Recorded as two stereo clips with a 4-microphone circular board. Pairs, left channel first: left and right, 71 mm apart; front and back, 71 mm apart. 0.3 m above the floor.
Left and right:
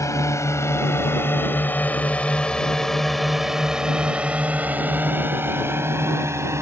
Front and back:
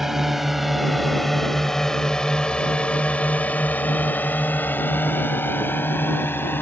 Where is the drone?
95° left; by 6.6 s 55° right.